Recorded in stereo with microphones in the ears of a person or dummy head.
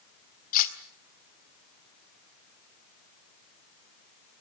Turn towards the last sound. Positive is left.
turn(degrees=50)  # may be behind; listen again after turning